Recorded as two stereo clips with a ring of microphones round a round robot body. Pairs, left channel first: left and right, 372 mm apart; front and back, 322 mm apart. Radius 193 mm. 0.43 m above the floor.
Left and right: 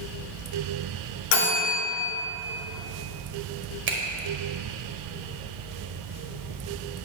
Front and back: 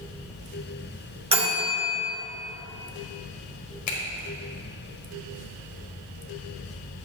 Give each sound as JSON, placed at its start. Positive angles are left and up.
{"t": 1.3, "sound": "a bell", "azimuth_deg": 110, "distance_m": 2.5}
{"t": 3.9, "sound": "a finger snap", "azimuth_deg": -35, "distance_m": 1.4}